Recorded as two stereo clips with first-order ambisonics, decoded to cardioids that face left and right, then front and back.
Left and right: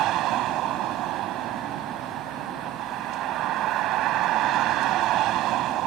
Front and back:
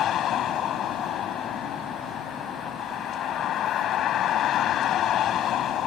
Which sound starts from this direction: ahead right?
A vehicle, at 0.0 s.